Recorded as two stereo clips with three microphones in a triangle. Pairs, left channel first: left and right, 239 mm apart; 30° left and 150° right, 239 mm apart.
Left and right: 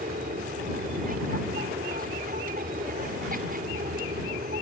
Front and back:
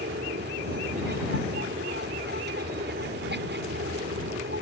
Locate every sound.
0.0 s an aircraft: 130° right